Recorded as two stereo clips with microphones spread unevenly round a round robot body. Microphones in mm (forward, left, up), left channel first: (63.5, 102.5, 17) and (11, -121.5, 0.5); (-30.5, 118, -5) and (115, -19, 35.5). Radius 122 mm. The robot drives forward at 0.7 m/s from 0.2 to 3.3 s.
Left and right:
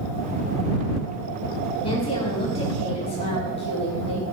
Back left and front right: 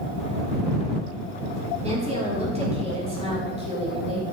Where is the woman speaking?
10° left, 8 m.